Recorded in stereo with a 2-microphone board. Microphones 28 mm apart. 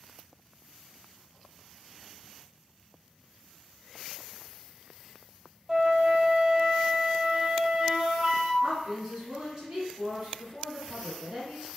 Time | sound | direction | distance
5.7 | a flute | 25° right (ahead or behind) | 0.5 m
8.6 | a woman speaking | 25° right (ahead or behind) | 1.8 m